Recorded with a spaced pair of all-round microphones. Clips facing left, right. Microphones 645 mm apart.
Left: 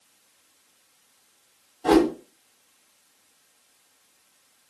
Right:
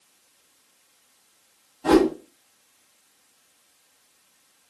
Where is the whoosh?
35° right (ahead or behind), 1.9 m.